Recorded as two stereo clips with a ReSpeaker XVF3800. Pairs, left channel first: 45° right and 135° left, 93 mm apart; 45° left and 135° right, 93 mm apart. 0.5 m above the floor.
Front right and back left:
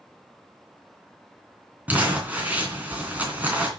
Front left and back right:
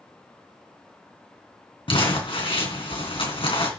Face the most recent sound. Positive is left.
turn(degrees=65)